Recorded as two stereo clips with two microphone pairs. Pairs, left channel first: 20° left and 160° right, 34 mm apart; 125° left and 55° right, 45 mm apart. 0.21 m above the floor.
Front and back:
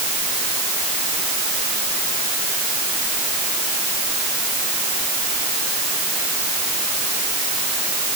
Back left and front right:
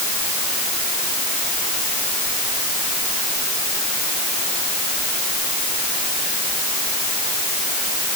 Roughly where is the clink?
I don't hear a clink.